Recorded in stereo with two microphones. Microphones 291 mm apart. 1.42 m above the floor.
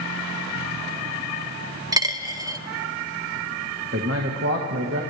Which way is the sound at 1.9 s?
10° right (ahead or behind).